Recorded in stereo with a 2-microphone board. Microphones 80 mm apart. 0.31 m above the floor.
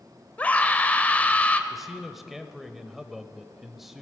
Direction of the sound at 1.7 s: Centre (ahead or behind).